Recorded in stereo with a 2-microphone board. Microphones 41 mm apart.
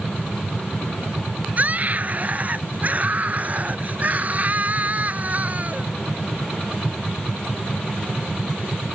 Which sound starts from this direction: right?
A scream, at 1.6 s.